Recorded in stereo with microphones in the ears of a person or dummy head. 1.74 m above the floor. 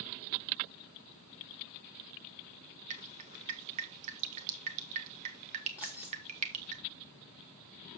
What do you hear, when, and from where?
2.9 s dripping: 35° right (ahead or behind), 0.8 m
5.8 s keys jangling: 10° right (ahead or behind), 0.9 m